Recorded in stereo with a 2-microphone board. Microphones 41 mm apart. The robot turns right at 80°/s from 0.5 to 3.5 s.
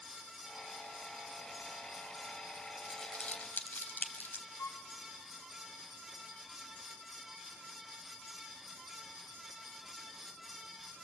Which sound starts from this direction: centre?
Crumpling, at 2.9 s.